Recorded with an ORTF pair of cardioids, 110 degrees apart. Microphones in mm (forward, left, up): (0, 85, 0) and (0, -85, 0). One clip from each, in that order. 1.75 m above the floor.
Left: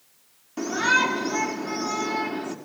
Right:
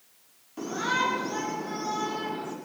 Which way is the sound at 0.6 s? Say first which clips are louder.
Left 6 dB; 50° left.